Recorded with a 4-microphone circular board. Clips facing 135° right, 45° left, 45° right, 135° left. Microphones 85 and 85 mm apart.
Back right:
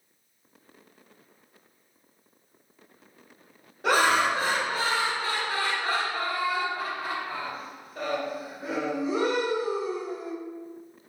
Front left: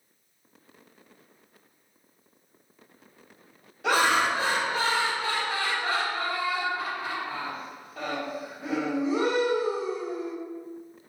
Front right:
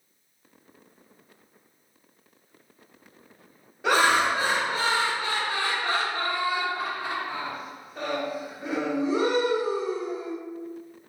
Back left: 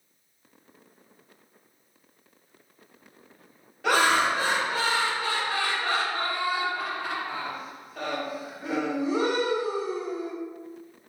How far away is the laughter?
About 1.4 m.